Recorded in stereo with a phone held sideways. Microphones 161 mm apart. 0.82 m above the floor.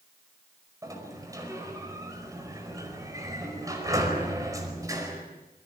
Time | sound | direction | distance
0.8 | a sliding door | 20° right (ahead or behind) | 5 m